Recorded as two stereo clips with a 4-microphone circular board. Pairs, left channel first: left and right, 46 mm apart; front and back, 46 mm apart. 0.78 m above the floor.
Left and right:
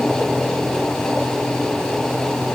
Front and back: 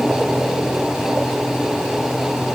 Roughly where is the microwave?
I don't hear a microwave.